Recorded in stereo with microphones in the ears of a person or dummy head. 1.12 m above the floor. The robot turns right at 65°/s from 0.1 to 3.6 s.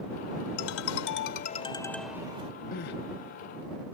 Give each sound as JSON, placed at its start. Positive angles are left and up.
{"t": 0.6, "sound": "a ringtone", "azimuth_deg": 80}
{"t": 2.7, "sound": "crying", "side_deg": 40}